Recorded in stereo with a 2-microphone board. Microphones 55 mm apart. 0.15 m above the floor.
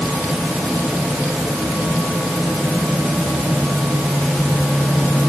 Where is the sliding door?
I don't hear a sliding door.